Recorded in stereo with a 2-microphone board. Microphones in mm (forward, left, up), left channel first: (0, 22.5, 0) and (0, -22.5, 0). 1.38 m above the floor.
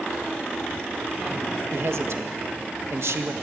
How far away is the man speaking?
About 1.6 m.